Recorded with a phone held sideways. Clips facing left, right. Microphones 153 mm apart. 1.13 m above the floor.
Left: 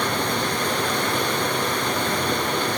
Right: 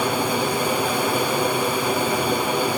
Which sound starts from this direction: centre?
Running water, at 0.0 s.